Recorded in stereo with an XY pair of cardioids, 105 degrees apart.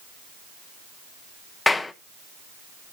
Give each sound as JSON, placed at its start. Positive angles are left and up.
{"t": 1.7, "sound": "a clap", "azimuth_deg": 20, "distance_m": 1.1}